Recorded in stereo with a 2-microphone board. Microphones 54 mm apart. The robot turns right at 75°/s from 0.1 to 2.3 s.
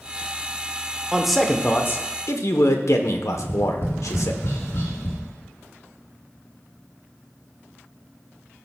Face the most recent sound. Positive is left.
turn(degrees=65)  # may be behind; listen again after turning